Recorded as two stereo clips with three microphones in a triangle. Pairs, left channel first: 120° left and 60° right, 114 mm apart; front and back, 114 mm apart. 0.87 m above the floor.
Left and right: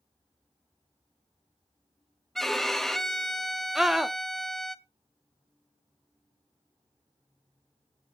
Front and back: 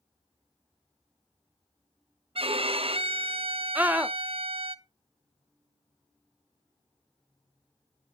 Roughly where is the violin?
Behind right.